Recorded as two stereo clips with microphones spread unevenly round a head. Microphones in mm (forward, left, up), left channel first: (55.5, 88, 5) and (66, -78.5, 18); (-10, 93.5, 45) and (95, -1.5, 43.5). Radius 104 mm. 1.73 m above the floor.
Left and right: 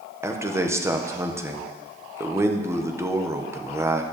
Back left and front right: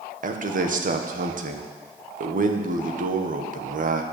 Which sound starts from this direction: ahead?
A man speaking, at 0.2 s.